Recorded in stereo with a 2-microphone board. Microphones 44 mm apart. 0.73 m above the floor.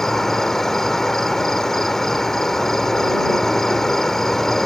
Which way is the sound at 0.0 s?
10° left (ahead or behind).